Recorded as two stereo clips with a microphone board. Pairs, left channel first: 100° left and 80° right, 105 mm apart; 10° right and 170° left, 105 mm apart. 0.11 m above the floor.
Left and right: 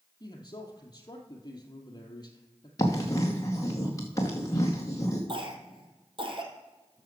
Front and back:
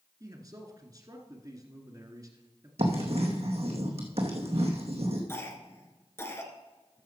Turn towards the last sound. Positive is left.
turn(degrees=-70)